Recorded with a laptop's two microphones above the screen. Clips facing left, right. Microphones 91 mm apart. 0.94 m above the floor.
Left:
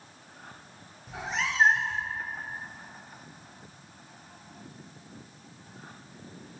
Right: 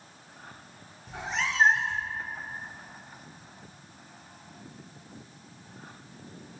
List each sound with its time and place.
1.1 s a cat meowing: centre (ahead or behind), 0.6 m